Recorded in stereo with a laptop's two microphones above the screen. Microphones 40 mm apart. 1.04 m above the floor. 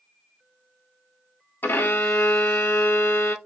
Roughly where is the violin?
Left.